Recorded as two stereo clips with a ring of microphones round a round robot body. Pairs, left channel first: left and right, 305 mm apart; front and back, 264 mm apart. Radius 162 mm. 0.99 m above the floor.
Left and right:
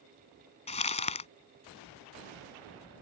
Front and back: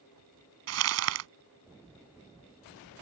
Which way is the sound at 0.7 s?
160° left.